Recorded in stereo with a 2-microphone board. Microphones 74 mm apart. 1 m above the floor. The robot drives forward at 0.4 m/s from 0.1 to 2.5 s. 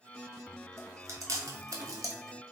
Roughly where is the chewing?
Right.